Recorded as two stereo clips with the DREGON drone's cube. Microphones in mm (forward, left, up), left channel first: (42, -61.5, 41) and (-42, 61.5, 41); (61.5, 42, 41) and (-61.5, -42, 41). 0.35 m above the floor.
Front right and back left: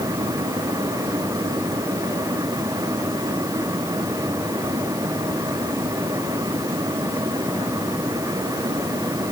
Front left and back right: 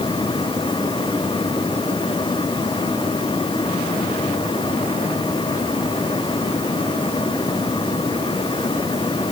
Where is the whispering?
No whispering in this recording.